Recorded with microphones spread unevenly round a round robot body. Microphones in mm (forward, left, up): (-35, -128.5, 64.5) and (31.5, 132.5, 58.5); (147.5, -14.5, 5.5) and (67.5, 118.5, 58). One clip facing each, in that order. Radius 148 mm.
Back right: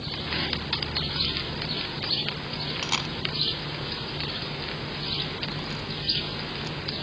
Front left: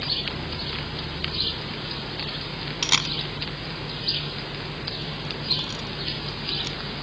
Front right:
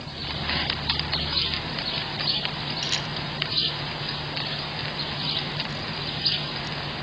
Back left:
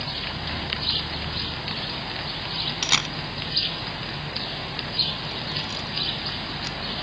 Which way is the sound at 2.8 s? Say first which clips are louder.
Front left 1 dB, back left 1 dB; 140° left.